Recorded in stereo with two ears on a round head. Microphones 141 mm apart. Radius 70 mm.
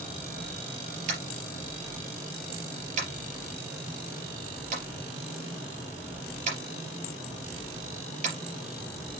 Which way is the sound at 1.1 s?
50° right (ahead or behind).